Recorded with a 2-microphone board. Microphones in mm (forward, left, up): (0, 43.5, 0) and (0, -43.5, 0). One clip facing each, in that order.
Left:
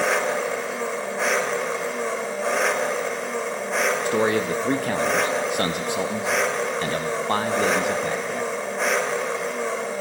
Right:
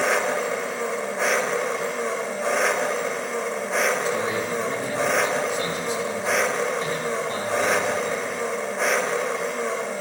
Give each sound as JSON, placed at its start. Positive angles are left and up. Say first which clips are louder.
{"t": 0.0, "sound": "an engine running", "louder": "even", "side_deg": 0, "distance_m": 0.8}
{"t": 4.0, "sound": "a man speaking", "louder": "left 3 dB", "side_deg": 70, "distance_m": 0.7}